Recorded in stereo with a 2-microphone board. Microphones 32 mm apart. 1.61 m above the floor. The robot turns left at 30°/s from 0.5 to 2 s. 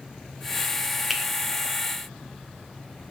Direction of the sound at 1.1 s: 5° right (ahead or behind).